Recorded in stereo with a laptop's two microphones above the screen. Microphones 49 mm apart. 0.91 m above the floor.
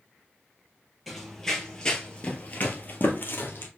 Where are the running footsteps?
Centre (ahead or behind), 1.2 m; by 3.7 s 50° left (ahead or behind), 1.3 m.